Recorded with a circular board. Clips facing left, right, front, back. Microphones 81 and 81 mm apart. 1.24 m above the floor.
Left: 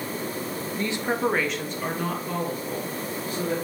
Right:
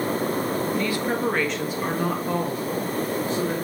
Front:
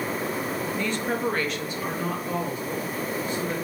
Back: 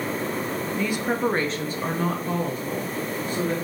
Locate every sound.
0.8 s a woman speaking: 100° left, 0.5 m; by 3.5 s 145° right, 1.4 m